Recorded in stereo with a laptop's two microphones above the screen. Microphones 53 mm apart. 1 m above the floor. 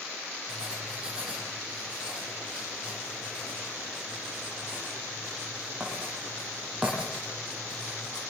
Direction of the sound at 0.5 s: 15° right (ahead or behind).